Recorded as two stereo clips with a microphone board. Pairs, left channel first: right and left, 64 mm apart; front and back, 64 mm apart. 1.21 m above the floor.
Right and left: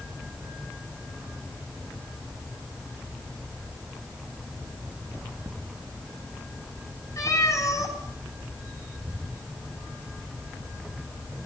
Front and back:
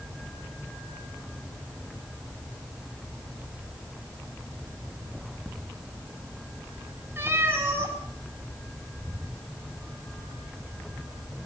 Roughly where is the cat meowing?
Behind right.